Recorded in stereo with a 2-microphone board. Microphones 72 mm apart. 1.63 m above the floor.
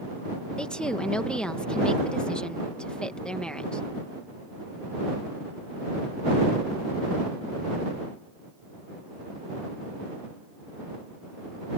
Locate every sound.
0.6 s a woman speaking: 10° left (ahead or behind)